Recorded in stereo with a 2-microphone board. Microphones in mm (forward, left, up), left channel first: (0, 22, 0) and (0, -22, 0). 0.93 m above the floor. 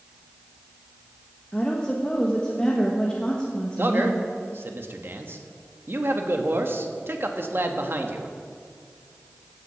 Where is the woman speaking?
20° left (ahead or behind), 1.2 m.